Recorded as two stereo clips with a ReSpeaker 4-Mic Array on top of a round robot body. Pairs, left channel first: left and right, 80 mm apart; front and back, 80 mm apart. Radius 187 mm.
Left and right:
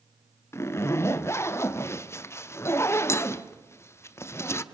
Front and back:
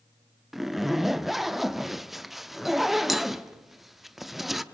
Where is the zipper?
95° left, 1.1 m.